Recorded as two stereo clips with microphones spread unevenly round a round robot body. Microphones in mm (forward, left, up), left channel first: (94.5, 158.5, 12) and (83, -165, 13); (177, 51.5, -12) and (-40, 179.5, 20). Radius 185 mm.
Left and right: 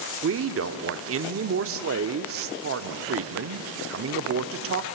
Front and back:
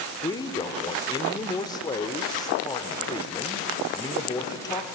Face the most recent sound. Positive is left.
turn(degrees=-90)